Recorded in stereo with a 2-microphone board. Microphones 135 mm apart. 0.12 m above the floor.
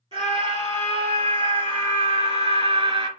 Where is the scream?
40° right (ahead or behind), 3.5 m; by 3.1 s 35° right (ahead or behind), 2 m.